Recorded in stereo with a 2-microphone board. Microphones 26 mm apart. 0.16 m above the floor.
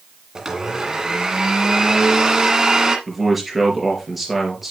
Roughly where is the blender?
Right.